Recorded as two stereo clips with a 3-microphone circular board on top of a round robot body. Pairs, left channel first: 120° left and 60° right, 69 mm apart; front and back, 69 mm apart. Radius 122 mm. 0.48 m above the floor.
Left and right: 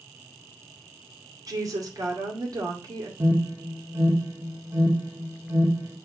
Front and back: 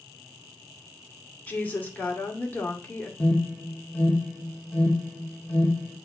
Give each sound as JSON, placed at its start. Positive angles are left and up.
{"t": 1.5, "sound": "a woman speaking", "azimuth_deg": -65, "distance_m": 2.5}
{"t": 3.2, "sound": "an alarm", "azimuth_deg": -55, "distance_m": 2.0}